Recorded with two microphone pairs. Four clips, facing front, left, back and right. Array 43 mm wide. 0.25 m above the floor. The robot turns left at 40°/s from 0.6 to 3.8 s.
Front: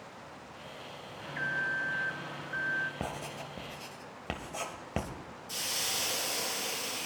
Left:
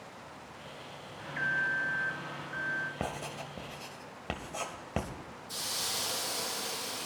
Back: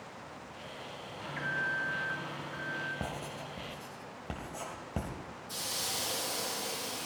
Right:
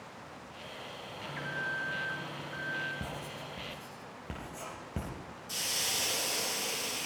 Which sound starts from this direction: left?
An alarm, at 1.2 s.